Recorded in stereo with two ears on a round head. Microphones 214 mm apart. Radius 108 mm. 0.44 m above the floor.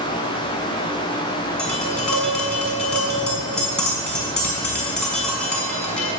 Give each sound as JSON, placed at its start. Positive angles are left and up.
{"t": 1.6, "sound": "tapping", "side_deg": 5, "distance_m": 5.0}